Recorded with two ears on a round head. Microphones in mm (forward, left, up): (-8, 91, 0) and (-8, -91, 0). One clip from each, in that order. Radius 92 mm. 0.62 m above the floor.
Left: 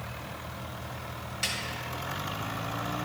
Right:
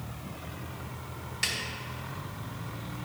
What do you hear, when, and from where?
1.4 s a snare drum: 10° right (ahead or behind), 1.7 m